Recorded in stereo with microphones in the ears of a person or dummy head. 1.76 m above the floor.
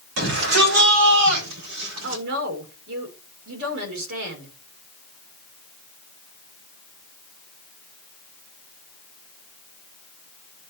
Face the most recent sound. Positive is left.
turn(degrees=-70)  # may be behind; listen again after turning